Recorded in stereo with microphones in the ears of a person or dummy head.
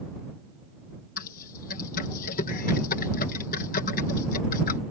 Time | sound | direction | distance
1.2 | typing on a keyboard | 40° left (ahead or behind) | ?